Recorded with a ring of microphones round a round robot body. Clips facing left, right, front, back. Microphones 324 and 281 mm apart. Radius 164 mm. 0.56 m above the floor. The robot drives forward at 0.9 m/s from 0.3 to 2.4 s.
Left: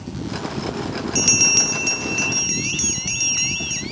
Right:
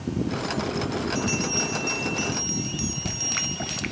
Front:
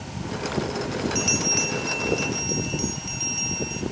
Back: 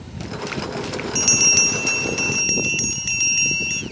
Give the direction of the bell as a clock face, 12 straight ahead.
8 o'clock.